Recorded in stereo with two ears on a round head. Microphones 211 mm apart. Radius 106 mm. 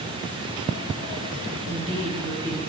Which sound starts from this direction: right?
A woman speaking, at 1.7 s.